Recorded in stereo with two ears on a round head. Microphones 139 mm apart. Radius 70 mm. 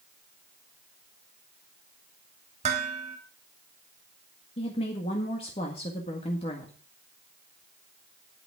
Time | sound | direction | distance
2.6 | dishes clattering | 45° right (ahead or behind) | 2 m
4.6 | a woman speaking | 40° left (ahead or behind) | 1.8 m